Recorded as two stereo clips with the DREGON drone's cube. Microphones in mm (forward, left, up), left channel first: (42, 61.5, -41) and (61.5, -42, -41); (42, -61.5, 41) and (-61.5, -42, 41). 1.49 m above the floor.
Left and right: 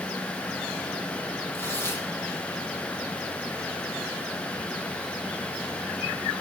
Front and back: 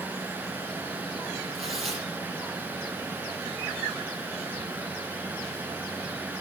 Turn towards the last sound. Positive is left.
turn(degrees=170)